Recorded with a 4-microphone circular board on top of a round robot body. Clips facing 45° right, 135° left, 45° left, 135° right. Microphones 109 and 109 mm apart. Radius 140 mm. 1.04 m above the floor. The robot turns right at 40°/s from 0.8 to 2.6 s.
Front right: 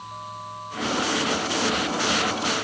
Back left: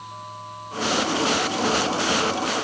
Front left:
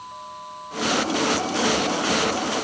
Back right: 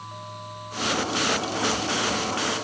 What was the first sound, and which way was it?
Only background noise.